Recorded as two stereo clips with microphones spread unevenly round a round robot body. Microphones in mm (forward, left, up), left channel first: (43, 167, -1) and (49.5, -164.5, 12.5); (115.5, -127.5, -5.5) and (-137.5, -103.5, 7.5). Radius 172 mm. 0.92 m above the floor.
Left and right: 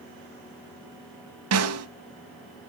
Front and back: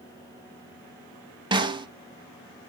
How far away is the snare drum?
About 1.1 m.